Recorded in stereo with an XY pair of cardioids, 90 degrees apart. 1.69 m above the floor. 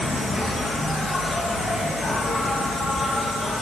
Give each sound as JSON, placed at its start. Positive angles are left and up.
{"t": 0.0, "sound": "an insect", "azimuth_deg": 30, "distance_m": 4.0}